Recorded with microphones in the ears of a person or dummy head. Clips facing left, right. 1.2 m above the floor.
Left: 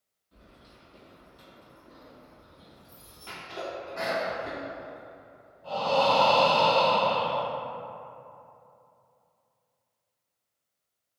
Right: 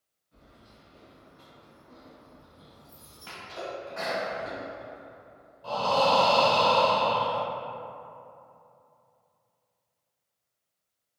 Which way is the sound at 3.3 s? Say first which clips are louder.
Left 1 dB; 20° right (ahead or behind).